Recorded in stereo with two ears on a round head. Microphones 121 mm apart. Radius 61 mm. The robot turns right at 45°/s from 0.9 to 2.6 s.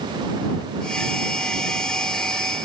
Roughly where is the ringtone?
I don't hear a ringtone.